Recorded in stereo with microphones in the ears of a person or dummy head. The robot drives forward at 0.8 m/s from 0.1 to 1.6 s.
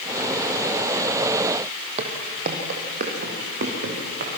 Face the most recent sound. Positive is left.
turn(degrees=-55)  # may be behind; listen again after turning